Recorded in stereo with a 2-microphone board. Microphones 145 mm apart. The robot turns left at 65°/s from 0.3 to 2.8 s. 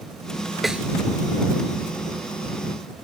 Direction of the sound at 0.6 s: Centre (ahead or behind).